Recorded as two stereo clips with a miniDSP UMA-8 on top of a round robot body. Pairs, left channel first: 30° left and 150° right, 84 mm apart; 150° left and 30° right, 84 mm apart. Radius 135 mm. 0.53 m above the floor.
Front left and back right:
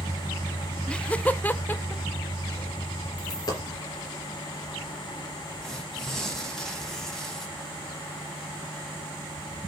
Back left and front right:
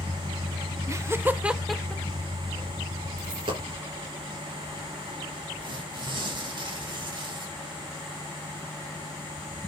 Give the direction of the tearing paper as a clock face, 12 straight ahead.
2 o'clock.